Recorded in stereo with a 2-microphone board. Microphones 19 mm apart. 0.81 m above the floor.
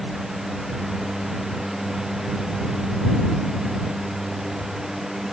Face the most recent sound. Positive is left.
No sound to turn to.